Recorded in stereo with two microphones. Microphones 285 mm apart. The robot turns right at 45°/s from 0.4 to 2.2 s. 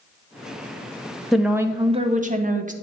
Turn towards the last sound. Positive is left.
turn(degrees=-140)